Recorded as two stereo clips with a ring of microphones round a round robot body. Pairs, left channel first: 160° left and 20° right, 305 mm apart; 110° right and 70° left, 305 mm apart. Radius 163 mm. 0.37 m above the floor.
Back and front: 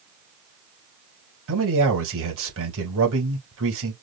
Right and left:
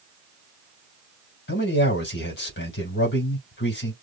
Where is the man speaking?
60° right, 3 m.